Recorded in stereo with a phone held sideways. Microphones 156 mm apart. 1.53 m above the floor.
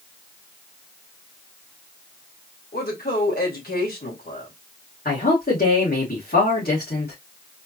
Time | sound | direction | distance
2.7 | a woman speaking | 80° left | 2.5 m
5.0 | a man speaking | 75° left (ahead or behind) | 2.5 m